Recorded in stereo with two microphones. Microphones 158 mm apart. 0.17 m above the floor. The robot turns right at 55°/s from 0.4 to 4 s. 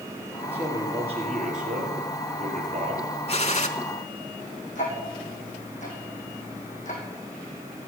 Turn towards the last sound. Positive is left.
turn(degrees=50)  # may be behind; listen again after turning